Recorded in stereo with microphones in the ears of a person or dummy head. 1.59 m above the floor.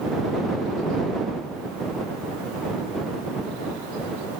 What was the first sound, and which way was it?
Only background noise.